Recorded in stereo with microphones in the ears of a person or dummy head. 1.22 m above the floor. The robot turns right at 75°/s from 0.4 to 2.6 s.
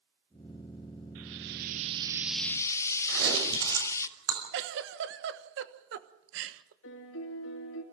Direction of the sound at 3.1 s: 75° right (ahead or behind).